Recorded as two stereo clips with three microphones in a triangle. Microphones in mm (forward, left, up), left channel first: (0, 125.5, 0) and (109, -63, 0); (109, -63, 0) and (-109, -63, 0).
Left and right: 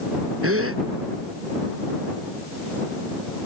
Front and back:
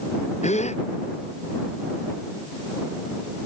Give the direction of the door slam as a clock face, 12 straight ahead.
No door slam in this recording.